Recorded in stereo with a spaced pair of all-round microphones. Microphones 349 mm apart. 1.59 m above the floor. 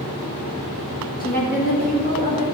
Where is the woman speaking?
25° left (ahead or behind), 2 m.